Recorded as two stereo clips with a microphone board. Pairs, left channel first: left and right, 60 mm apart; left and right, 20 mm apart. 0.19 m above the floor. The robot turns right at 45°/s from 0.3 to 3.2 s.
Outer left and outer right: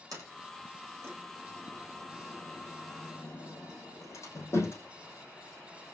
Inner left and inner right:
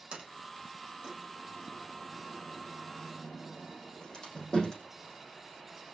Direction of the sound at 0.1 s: 75° right (ahead or behind).